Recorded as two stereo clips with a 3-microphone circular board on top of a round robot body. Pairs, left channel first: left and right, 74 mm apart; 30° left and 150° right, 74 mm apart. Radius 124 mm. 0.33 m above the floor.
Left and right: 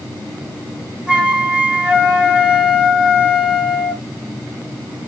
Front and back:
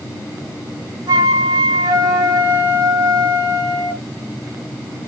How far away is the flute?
About 2.5 m.